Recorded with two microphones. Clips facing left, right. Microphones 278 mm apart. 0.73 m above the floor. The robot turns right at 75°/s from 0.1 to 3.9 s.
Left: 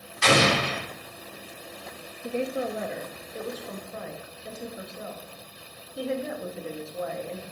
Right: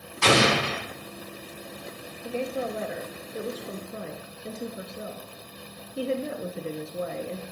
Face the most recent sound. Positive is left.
turn(degrees=-95)